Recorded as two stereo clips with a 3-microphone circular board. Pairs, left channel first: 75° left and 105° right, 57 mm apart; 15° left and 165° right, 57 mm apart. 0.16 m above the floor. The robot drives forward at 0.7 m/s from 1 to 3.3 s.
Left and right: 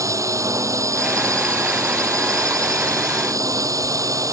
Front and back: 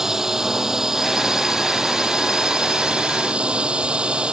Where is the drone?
85° right; by 4.3 s 95° right.